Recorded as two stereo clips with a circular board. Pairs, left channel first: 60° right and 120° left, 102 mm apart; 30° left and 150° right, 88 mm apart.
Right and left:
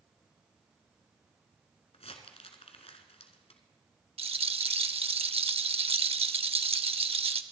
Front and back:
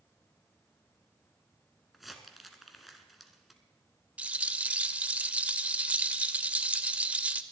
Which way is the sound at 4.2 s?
135° left.